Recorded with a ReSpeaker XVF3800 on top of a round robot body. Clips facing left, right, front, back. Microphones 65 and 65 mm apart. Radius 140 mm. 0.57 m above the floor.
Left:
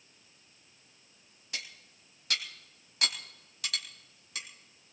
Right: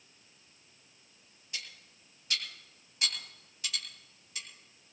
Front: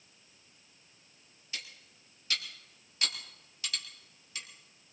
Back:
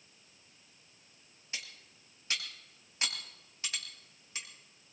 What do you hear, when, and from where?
1.5 s cutlery clinking: 115° left, 2.5 m